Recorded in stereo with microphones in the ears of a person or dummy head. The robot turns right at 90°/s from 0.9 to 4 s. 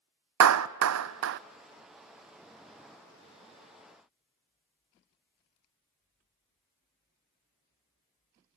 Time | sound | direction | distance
0.4 | a clap | 80° right | 0.7 m